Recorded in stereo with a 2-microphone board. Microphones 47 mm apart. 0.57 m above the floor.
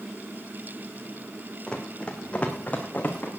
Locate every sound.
1.7 s running footsteps: 20° left (ahead or behind), 2 m; by 3.3 s 35° left (ahead or behind), 3 m